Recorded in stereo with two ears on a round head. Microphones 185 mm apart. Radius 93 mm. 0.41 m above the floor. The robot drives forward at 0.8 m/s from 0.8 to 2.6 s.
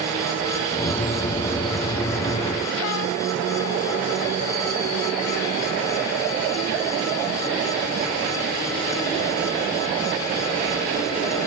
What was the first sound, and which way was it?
Only background noise.